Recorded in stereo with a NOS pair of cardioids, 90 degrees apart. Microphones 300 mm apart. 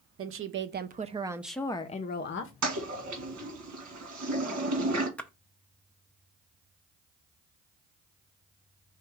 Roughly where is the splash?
Ahead.